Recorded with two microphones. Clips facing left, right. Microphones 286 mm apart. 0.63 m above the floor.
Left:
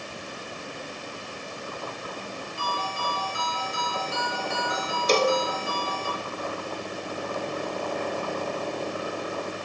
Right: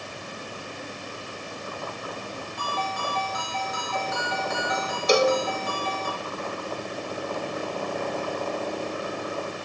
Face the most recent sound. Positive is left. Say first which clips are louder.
# right 2 dB
turn(degrees=-10)  # may be behind; listen again after turning